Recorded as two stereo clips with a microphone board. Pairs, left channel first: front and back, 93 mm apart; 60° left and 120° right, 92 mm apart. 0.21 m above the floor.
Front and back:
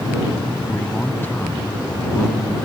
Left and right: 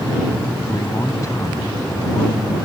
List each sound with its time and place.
0.7 s a man speaking: 55° left